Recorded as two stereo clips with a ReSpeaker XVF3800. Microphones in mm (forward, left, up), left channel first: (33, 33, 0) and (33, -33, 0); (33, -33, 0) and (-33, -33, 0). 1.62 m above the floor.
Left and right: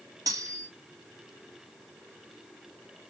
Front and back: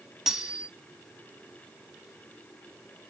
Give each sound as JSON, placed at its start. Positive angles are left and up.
{"t": 0.3, "sound": "cutlery clinking", "azimuth_deg": -100, "distance_m": 1.9}